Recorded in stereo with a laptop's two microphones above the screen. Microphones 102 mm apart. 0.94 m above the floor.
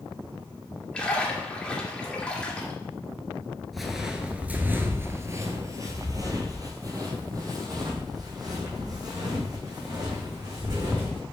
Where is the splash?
10° left (ahead or behind), 2.0 m.